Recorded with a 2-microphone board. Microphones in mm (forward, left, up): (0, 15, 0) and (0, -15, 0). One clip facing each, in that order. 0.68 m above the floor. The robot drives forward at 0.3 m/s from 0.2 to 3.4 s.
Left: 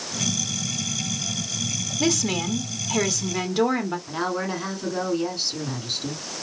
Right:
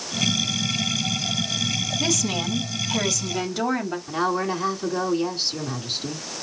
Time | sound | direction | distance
2.0 | a woman speaking | 10° left (ahead or behind) | 1.0 m
4.1 | a woman speaking | 5° right (ahead or behind) | 2 m